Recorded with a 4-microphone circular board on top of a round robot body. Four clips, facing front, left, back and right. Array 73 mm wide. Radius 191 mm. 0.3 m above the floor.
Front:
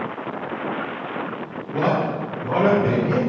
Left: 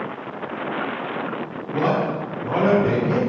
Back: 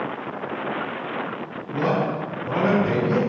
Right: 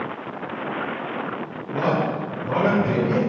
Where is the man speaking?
10° left, 1.7 m.